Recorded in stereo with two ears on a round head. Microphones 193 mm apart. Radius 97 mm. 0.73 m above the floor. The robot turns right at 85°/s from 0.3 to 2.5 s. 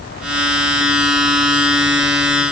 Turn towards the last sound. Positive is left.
No sound to turn to.